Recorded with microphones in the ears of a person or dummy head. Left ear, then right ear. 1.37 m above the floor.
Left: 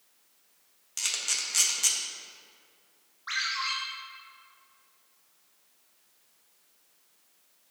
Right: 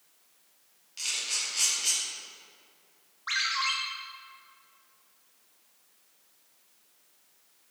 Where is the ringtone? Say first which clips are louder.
Right 2 dB; 15° right (ahead or behind), 1.6 m.